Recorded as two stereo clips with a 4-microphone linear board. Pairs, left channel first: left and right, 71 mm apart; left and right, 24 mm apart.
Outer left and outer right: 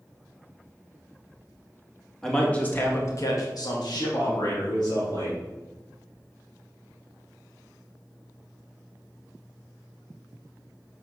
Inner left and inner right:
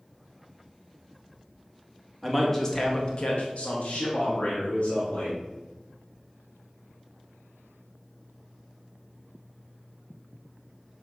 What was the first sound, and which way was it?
A man speaking, 5° left (ahead or behind).